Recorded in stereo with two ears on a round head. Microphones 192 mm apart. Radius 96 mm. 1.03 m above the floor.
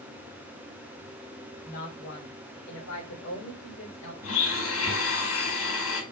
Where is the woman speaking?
50° left (ahead or behind), 3 m; by 4.1 s 80° left, 4.5 m.